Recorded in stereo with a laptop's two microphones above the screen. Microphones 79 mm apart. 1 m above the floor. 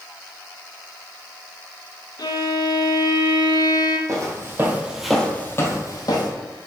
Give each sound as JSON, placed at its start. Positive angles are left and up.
{"t": 2.2, "sound": "a violin", "side_deg": 60, "distance_m": 0.8}
{"t": 4.1, "sound": "footsteps", "side_deg": -40, "distance_m": 2.0}